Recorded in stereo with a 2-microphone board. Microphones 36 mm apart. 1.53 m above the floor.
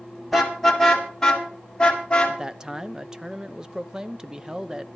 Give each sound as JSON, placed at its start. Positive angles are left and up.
{"t": 0.3, "sound": "a car horn", "side_deg": 0, "distance_m": 3.0}
{"t": 2.3, "sound": "a man speaking", "side_deg": -20, "distance_m": 0.6}